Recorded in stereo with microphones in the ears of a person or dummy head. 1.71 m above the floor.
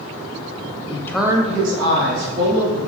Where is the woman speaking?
35° left (ahead or behind), 0.6 m; by 2.8 s 75° right (ahead or behind), 2.0 m.